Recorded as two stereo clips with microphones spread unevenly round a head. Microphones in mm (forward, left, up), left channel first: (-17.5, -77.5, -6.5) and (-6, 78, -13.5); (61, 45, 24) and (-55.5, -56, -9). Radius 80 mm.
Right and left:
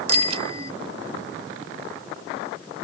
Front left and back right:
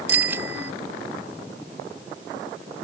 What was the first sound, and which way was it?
A bicycle bell, 140° left.